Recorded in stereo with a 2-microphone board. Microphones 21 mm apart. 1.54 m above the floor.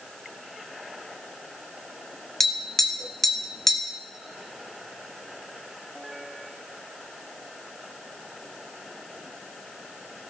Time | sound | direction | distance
2.4 | tapping | 15° left (ahead or behind) | 1.1 m